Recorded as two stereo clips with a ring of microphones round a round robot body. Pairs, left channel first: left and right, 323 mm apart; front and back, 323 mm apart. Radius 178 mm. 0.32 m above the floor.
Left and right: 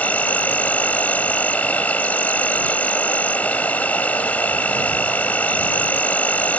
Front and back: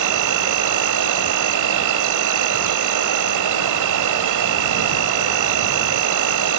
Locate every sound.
0.0 s an insect: 175° left